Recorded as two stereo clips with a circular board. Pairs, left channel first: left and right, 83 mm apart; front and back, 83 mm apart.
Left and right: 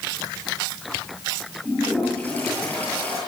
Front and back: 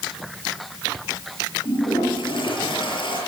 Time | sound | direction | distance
1.6 | a toilet flushing | 20° left | 8.5 m